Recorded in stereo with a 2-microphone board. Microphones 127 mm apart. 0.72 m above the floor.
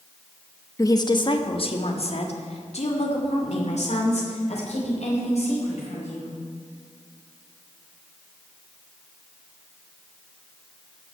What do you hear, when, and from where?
0.8 s a woman speaking: 25° left (ahead or behind), 0.9 m; by 6.3 s 60° left (ahead or behind), 5 m